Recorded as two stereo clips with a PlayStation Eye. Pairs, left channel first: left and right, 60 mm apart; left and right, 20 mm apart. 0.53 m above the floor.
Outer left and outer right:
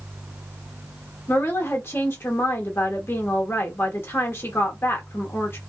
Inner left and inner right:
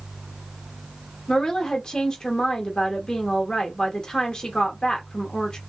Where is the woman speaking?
40° left (ahead or behind), 1.0 m.